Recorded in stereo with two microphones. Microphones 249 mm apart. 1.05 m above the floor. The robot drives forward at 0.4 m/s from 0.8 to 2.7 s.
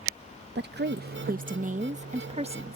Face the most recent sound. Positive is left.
turn(degrees=-25)  # may be behind; listen again after turning